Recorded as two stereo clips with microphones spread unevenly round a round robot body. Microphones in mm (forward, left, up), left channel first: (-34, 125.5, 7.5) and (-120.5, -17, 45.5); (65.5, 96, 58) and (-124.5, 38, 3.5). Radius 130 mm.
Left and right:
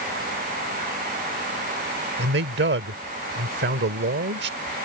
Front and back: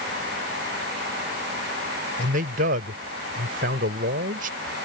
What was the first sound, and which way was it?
A man speaking, 125° right.